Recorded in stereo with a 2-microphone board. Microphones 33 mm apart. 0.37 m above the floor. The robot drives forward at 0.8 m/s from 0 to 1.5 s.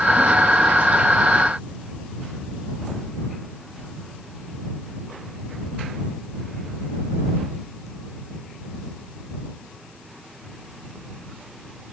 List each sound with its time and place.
Only background noise.